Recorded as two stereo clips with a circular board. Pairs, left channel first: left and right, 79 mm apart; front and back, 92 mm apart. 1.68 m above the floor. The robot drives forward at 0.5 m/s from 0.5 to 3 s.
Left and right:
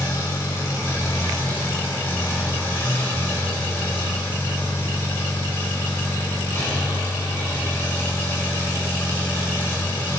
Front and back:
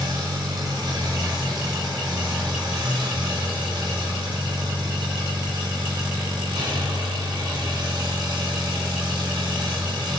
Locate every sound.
0.0 s an engine running: 140° left, 5 m; by 10.2 s 150° left, 6 m